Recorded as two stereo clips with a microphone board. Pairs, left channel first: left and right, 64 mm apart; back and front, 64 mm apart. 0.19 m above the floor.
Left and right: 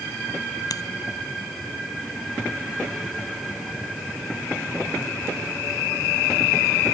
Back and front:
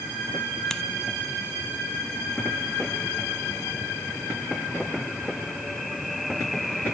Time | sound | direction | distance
0.7 | scissors | 100° left | ?